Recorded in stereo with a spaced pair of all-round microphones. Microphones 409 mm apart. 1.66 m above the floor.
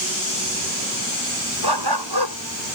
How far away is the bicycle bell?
I don't hear a bicycle bell.